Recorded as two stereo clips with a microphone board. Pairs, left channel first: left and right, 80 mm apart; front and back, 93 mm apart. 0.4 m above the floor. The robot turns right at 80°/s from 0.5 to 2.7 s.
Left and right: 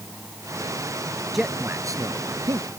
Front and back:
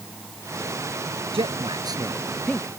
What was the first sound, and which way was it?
A man speaking, straight behind.